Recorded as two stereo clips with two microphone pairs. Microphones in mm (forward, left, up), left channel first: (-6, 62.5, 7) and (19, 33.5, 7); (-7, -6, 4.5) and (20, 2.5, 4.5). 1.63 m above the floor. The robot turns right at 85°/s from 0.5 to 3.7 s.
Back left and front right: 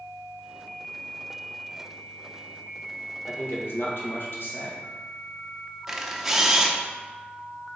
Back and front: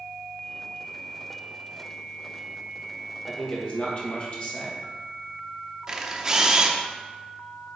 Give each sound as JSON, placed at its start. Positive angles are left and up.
{"t": 3.3, "sound": "a man speaking", "azimuth_deg": 105, "distance_m": 1.9}
{"t": 5.9, "sound": "a camera shutter", "azimuth_deg": 20, "distance_m": 0.7}